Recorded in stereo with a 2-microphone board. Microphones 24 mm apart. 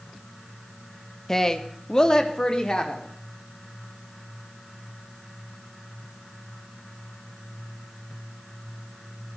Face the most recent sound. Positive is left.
turn(degrees=30)  # may be behind; listen again after turning